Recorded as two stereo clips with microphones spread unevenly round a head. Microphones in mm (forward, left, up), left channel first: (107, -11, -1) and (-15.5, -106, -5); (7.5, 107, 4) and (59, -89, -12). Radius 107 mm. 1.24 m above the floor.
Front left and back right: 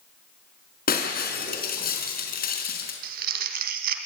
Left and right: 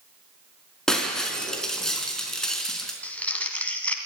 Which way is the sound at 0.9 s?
20° left.